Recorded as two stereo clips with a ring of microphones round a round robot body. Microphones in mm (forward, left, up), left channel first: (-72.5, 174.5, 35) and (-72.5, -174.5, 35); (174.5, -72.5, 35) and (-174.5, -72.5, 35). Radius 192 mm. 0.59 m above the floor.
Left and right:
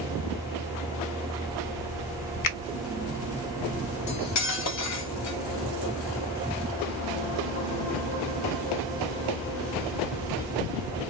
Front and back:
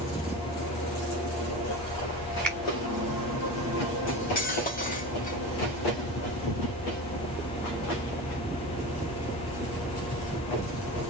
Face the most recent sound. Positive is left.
turn(degrees=65)